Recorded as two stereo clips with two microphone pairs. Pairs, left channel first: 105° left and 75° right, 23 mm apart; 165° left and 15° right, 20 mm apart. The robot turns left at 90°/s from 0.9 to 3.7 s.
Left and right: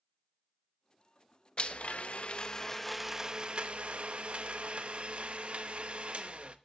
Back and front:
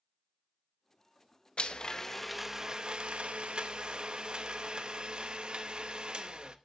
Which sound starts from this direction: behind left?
A blender, at 1.6 s.